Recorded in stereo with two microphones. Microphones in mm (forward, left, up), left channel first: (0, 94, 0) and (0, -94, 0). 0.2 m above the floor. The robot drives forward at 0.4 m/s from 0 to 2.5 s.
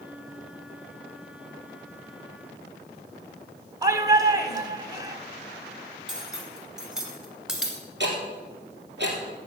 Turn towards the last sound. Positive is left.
turn(degrees=-75)  # may be behind; listen again after turning